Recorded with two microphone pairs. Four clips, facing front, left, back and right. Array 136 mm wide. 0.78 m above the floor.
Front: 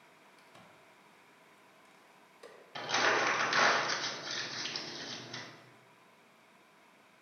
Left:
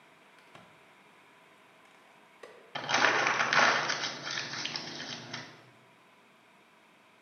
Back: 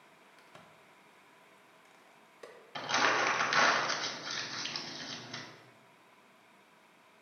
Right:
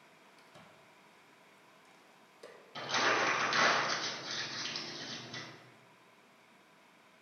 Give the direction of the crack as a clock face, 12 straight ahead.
7 o'clock.